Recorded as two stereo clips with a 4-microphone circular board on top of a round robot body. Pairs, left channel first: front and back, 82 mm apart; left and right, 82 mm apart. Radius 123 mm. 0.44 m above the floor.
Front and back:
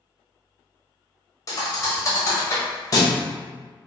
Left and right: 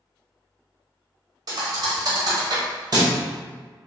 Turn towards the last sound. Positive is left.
turn(degrees=-50)